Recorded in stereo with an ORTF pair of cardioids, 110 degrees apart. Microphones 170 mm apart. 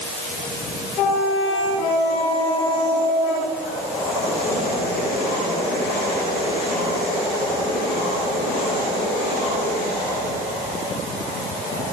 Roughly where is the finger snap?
No finger snap in this recording.